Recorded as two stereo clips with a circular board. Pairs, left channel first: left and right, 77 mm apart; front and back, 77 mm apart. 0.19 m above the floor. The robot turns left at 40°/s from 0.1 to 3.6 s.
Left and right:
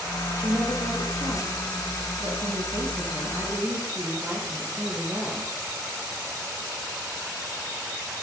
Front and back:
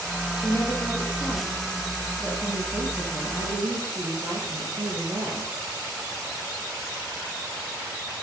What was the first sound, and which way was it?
A woman speaking, 25° right.